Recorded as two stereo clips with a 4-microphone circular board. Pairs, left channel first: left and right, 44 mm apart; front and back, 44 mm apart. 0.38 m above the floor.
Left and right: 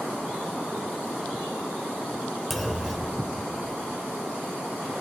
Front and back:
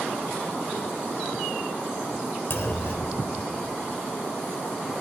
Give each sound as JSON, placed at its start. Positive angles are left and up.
{"t": 2.5, "sound": "a clunk", "azimuth_deg": 0, "distance_m": 0.6}